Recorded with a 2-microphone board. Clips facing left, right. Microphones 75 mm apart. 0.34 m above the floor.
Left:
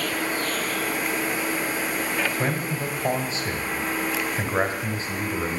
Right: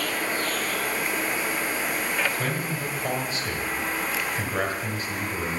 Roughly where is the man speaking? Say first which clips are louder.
Left 2 dB; centre.